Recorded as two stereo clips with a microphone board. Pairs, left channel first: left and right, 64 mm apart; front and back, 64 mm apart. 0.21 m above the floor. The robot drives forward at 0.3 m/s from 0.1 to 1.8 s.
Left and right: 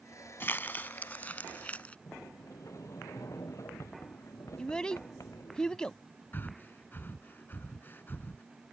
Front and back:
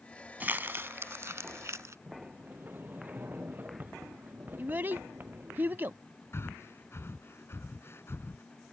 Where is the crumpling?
130° left; by 2.0 s 155° left.